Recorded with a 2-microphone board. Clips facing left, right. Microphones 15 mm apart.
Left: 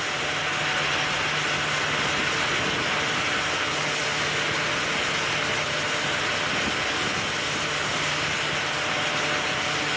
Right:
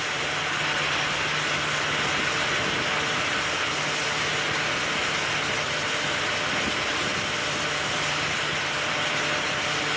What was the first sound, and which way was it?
Only background noise.